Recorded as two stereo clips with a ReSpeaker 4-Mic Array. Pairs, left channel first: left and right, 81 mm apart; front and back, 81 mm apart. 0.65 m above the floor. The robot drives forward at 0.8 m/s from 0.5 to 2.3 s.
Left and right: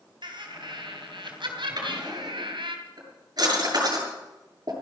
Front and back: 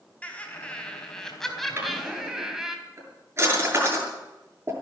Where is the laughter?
75° right, 4 m; by 2.8 s 95° right, 3.5 m.